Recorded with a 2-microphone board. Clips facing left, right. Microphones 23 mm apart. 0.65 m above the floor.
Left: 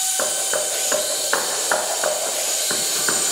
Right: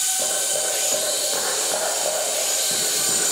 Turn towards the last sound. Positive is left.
turn(degrees=85)